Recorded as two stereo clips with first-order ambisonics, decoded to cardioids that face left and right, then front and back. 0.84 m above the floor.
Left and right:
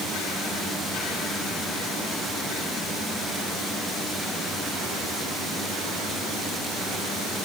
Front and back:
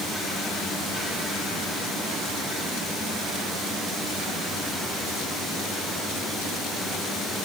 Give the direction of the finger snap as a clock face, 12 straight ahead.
I don't hear a finger snap.